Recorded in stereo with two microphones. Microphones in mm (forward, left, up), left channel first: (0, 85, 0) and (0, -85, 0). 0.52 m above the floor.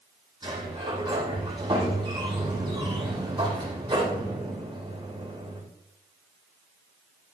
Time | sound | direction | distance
0.4 | a sliding door | 25° right (ahead or behind) | 7 m